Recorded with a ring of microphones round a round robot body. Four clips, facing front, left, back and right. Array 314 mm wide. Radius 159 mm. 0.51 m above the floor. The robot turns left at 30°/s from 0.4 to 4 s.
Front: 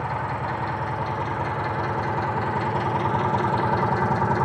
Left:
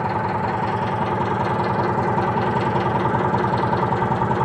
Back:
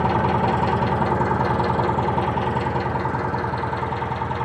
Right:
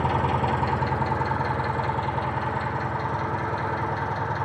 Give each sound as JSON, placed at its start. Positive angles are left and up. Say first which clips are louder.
{"t": 0.0, "sound": "an engine running", "louder": "left 2 dB, back 8 dB", "azimuth_deg": -175, "distance_m": 3.5}